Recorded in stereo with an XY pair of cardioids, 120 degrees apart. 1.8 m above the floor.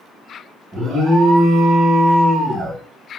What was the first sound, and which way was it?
An alarm, 35° right.